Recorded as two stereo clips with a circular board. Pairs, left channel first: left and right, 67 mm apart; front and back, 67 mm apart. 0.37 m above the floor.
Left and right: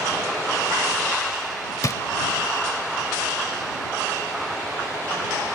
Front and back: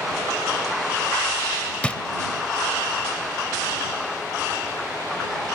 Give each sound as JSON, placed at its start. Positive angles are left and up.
{"t": 1.8, "sound": "a drawer", "azimuth_deg": 70}